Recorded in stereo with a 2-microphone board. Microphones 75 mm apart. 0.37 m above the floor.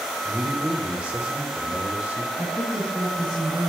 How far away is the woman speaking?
About 3 m.